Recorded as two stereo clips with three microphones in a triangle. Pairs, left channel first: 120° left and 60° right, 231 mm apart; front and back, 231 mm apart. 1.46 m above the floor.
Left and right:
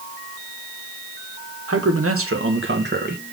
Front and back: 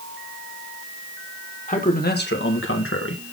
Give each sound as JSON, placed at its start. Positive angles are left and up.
{"t": 1.7, "sound": "a man speaking", "azimuth_deg": -55, "distance_m": 1.7}